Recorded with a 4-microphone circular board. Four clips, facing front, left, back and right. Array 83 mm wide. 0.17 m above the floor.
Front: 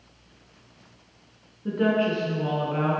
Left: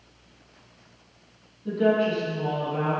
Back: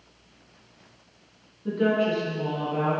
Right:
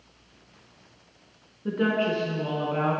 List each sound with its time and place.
1.6 s a woman speaking: 75° right, 1.7 m; by 3.0 s 30° right, 1.6 m